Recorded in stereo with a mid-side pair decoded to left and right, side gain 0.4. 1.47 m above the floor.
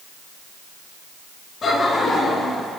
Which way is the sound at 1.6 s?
50° left.